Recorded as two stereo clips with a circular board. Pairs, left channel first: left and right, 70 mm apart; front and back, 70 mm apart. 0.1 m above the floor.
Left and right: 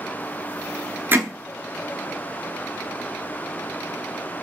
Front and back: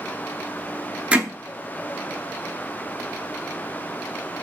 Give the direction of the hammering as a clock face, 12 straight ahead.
4 o'clock.